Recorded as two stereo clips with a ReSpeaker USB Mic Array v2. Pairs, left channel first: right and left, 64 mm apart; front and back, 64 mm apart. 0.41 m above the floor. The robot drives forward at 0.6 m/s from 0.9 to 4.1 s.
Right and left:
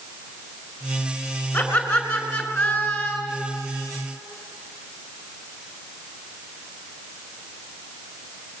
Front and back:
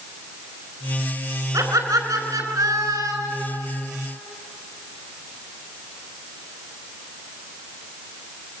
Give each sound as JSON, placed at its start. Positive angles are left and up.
{"t": 1.5, "sound": "laughter", "azimuth_deg": -160, "distance_m": 5.5}